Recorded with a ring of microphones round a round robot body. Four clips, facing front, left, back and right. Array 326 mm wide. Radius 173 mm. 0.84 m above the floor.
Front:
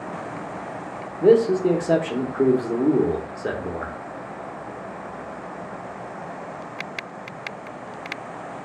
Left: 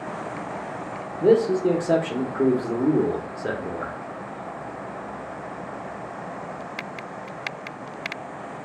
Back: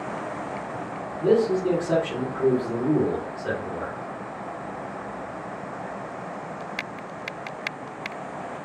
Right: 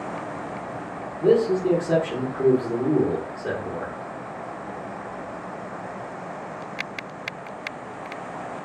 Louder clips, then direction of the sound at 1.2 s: Left 1 dB, front 4 dB; 25° left.